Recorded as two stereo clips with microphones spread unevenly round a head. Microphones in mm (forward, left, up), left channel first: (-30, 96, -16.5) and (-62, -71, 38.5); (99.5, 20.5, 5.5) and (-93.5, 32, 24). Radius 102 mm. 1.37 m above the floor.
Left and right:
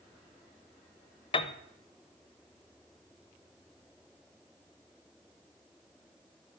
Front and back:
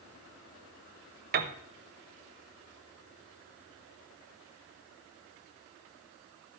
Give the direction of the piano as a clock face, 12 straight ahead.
7 o'clock.